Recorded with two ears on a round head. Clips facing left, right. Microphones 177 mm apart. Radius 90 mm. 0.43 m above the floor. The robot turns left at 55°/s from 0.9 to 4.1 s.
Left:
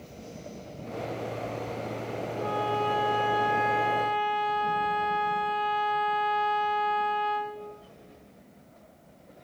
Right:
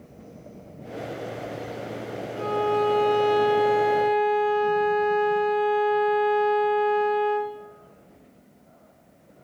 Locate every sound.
2.4 s a violin: 65° right, 3 m; by 7.6 s 160° right, 3 m